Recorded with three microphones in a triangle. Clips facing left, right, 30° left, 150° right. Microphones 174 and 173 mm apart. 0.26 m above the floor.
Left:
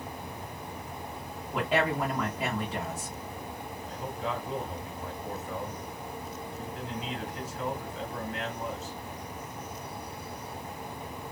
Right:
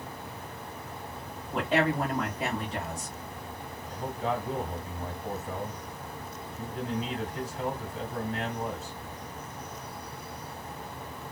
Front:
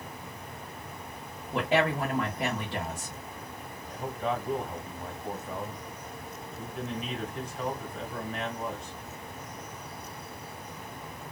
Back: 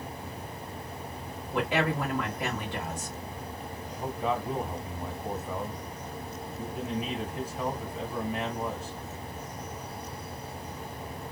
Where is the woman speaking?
5° left, 1.2 m.